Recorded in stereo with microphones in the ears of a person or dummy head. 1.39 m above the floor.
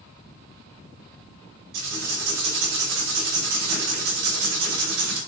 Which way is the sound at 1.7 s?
65° right (ahead or behind).